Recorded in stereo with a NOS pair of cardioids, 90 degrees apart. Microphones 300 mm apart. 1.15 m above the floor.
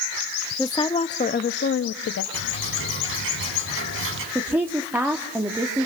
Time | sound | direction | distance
0.6 | a woman speaking | 10° left | 1.7 m
2.3 | ticking | 45° right | 8 m
4.3 | a woman speaking | 5° right | 2.5 m